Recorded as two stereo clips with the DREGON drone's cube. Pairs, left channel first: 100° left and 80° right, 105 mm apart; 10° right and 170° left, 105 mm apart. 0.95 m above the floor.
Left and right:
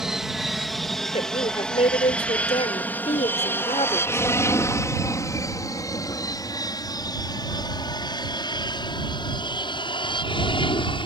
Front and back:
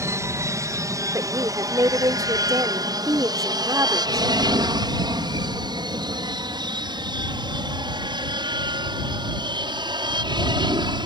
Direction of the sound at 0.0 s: 160° right.